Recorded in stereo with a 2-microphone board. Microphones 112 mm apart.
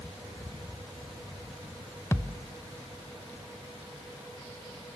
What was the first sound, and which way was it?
A thud, 25° left (ahead or behind).